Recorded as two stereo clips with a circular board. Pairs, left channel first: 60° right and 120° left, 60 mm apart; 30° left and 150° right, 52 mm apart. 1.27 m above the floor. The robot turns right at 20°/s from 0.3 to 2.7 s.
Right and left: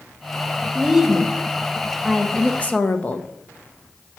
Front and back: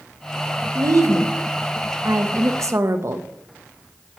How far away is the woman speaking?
About 0.9 m.